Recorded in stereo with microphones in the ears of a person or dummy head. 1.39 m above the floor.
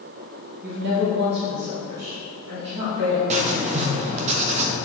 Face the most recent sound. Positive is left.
turn(degrees=-35)  # may be behind; listen again after turning